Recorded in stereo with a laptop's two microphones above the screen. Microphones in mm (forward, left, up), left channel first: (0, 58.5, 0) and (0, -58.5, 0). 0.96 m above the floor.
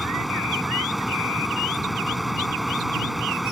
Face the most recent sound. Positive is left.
turn(degrees=0)  # may be behind; listen again after turning